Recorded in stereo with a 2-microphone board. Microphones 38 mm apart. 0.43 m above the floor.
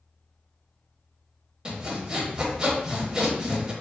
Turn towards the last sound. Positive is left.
turn(degrees=-25)  # may be behind; listen again after turning